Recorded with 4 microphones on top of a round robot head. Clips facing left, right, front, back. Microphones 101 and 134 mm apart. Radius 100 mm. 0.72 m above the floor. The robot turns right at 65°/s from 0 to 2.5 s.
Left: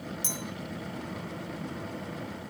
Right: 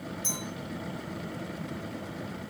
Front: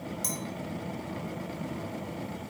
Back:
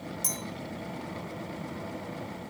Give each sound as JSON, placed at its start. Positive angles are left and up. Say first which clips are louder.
{"t": 0.2, "sound": "a clink", "louder": "even, front 2 dB", "azimuth_deg": 95, "distance_m": 3.0}